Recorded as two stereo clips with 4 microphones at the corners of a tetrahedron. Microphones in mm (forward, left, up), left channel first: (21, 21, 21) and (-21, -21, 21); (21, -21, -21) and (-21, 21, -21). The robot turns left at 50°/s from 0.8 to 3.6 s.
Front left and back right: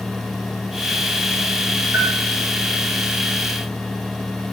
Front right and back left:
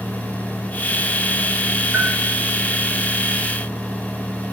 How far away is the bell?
About 3.5 m.